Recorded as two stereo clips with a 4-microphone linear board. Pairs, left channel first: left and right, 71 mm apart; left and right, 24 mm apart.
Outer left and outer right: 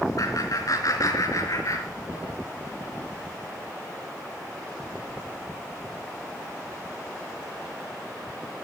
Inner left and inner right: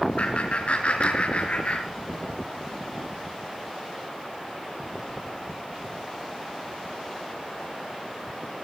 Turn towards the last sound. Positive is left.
turn(degrees=45)  # may be behind; listen again after turning